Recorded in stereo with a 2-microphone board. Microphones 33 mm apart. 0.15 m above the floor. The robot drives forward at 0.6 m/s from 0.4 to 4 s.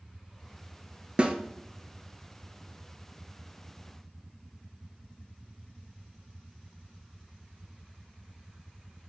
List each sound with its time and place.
1.2 s a snare drum: 30° right (ahead or behind), 0.8 m